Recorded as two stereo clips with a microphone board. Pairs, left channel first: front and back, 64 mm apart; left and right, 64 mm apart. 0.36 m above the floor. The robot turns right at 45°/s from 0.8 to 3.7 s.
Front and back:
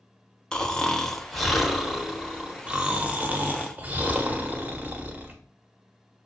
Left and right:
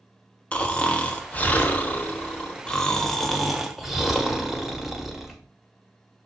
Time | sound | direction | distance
0.5 | snoring | 60° left | 0.7 m